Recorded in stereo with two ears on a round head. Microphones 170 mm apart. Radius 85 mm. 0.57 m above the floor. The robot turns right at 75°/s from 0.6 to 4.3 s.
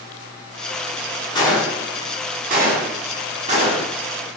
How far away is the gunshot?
About 1.2 m.